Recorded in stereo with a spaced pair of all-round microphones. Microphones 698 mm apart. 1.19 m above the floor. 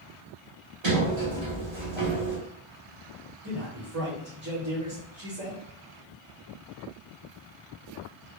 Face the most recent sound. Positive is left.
turn(degrees=-15)  # may be behind; listen again after turning